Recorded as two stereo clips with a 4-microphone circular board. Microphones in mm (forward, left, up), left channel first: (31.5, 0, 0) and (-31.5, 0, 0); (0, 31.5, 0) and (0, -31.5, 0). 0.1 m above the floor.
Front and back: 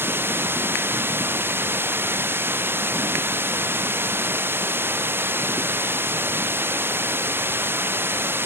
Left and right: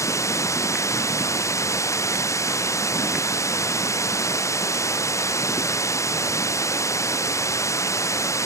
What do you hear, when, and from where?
0.0 s running water: 125° left